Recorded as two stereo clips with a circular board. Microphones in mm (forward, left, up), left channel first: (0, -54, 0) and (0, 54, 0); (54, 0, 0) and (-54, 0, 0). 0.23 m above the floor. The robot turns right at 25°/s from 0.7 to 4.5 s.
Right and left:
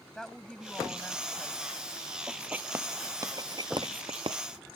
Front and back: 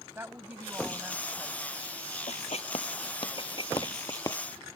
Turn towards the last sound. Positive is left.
turn(degrees=65)